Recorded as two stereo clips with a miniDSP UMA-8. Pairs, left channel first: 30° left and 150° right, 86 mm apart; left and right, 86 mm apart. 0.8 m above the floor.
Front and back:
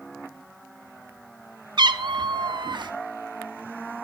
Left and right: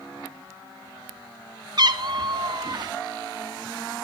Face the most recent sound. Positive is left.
turn(degrees=-125)